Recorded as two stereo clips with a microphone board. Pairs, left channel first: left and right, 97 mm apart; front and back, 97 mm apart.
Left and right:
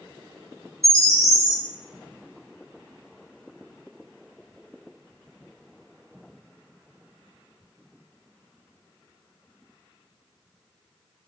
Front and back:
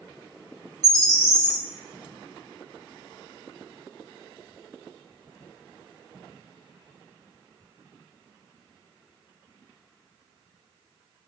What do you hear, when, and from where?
0.8 s a bird: 140° right, 1.5 m